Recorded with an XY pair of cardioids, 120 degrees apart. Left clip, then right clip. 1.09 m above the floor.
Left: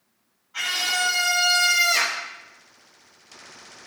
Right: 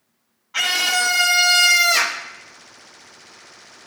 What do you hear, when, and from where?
0.5 s a scream: 65° right, 1.4 m; by 2.2 s 25° right, 1.2 m